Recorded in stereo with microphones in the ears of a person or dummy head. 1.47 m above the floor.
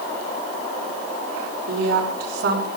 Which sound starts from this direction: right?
A woman speaking, at 1.7 s.